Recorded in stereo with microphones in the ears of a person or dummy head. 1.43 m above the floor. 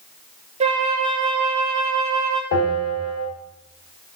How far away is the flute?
About 0.6 m.